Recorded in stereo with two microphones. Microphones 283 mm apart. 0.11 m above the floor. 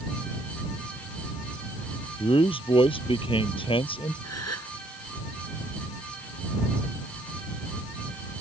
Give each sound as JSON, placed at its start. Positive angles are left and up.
{"t": 2.2, "sound": "a man speaking", "side_deg": 20}
{"t": 4.2, "sound": "a gasp", "side_deg": 65}